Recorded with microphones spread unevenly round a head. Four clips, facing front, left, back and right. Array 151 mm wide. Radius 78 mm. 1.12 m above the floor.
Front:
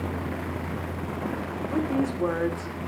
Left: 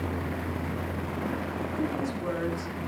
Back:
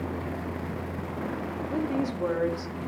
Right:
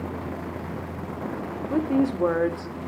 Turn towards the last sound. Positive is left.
turn(degrees=-85)